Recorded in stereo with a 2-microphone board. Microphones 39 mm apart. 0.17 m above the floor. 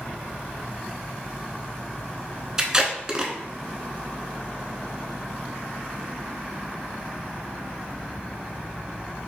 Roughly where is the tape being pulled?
Centre.